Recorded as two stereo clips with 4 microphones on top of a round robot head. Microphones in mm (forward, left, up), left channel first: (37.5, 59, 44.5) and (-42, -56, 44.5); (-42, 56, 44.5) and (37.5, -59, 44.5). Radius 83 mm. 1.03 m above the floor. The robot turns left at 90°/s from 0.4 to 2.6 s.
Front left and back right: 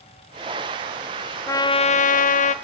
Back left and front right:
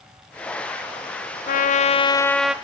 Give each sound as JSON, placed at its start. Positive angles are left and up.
{"t": 1.5, "sound": "a trumpet", "azimuth_deg": 125, "distance_m": 0.8}